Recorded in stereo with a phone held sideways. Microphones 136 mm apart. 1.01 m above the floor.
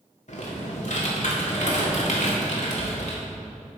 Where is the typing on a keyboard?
60° left (ahead or behind), 1.6 m.